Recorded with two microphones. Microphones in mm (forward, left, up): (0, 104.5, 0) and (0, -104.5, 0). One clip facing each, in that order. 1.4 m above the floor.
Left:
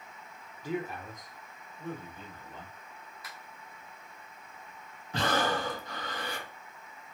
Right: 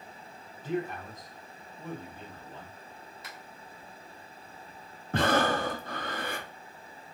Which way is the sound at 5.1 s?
55° right (ahead or behind).